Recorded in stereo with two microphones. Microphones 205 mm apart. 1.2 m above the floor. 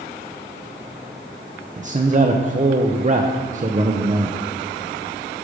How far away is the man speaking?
About 0.6 m.